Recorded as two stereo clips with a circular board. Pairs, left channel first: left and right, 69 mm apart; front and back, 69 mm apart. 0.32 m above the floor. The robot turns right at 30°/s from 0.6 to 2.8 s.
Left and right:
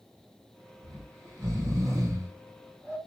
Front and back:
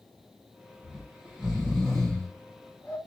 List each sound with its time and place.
0.8 s snoring: 110° right, 1.9 m; by 3.0 s 55° right, 1.9 m